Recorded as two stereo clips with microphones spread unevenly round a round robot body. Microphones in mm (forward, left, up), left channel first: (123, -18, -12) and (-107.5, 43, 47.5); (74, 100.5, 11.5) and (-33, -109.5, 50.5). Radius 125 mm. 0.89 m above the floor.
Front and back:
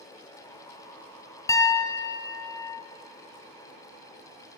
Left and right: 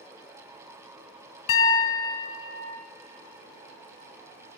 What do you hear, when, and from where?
1.5 s a piano: 75° left, 0.8 m